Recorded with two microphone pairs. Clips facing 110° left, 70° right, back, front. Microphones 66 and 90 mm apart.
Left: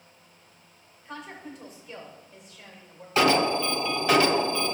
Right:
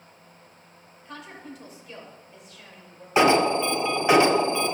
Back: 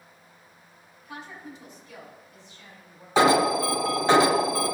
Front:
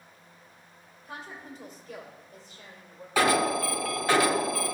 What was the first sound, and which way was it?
A woman speaking, 20° left.